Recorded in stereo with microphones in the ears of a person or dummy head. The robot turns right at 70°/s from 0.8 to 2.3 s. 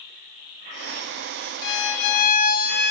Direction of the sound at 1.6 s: 75° left.